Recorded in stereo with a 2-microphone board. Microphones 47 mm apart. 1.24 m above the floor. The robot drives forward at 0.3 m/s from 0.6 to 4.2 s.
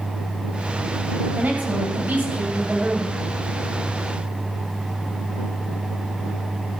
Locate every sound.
1.3 s a woman speaking: 35° right (ahead or behind), 7.5 m; by 3.2 s 40° right (ahead or behind), 7.5 m